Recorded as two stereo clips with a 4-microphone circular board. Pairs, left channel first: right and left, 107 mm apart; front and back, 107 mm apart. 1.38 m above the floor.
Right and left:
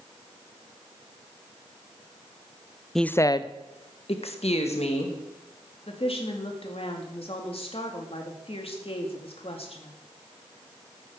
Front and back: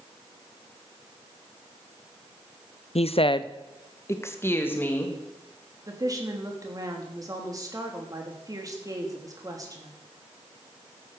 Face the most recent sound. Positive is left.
turn(degrees=-120)